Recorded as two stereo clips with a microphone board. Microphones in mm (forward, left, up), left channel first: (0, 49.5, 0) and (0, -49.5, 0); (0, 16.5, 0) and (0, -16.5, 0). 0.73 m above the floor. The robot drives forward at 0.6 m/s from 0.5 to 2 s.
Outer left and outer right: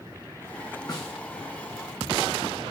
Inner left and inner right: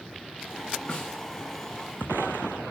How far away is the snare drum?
About 1.2 m.